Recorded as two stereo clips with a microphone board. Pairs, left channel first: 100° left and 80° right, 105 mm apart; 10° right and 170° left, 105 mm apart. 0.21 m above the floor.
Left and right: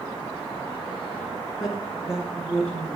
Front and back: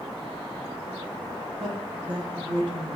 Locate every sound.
1.6 s a woman speaking: 165° right, 1.7 m; by 3.0 s 160° right, 3 m